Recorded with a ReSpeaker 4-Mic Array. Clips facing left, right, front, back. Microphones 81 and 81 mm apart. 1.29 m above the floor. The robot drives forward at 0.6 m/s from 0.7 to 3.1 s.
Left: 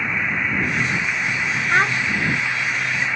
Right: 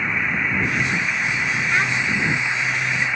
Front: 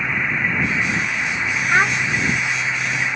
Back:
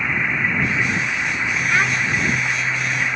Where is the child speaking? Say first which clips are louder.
Left 5 dB, front 3 dB; 50° left; by 2.0 s 65° left.